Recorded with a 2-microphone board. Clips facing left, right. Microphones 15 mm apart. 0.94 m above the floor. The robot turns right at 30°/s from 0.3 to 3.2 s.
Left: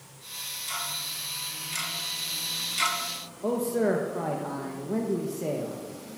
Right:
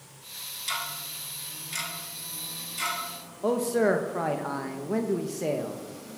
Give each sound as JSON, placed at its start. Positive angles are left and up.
{"t": 0.7, "sound": "ticking", "side_deg": -30, "distance_m": 1.5}
{"t": 3.4, "sound": "a man speaking", "side_deg": -25, "distance_m": 0.6}